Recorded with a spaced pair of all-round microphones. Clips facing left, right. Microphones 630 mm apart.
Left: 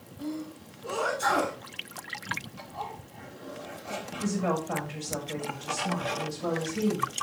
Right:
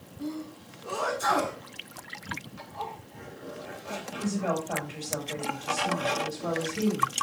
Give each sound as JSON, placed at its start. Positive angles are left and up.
{"t": 0.2, "sound": "a sneeze", "side_deg": 20, "distance_m": 8.5}
{"t": 2.6, "sound": "a zipper", "side_deg": 15, "distance_m": 3.0}
{"t": 4.2, "sound": "a woman speaking", "side_deg": 40, "distance_m": 7.0}